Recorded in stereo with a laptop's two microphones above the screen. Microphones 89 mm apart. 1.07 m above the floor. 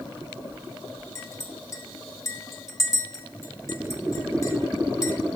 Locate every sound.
1.1 s a clink: 35° left (ahead or behind), 2 m